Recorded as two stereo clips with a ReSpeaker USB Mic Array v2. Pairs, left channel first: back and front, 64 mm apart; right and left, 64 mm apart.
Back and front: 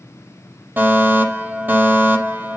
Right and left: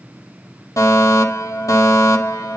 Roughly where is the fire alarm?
Ahead right.